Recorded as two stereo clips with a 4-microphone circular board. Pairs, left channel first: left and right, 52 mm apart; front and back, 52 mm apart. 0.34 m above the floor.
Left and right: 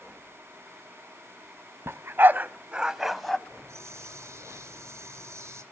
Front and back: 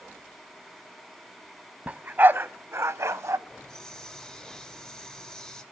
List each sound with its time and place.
1.9 s a dog barking: 120° right, 0.8 m; by 3.4 s 170° left, 0.8 m
3.5 s a hiss: 75° right, 1.7 m